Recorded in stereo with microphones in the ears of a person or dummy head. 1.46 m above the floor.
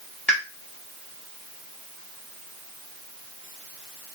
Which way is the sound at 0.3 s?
5° left (ahead or behind).